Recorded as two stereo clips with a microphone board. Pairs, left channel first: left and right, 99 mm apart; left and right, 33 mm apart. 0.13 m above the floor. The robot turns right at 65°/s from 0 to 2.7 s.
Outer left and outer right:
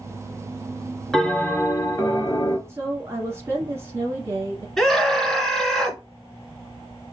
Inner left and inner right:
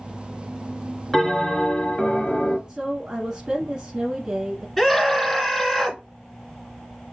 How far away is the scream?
About 1.5 m.